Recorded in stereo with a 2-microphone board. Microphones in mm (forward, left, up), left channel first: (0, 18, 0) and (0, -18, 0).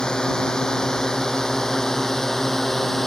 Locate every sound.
0.0 s a drone: 20° left (ahead or behind); by 3.1 s 10° left (ahead or behind)